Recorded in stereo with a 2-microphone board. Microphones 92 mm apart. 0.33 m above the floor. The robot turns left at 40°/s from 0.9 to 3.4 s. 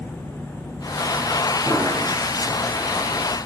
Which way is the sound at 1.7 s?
35° left (ahead or behind).